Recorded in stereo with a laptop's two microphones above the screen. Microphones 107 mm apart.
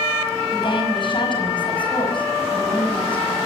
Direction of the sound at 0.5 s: 45° left (ahead or behind).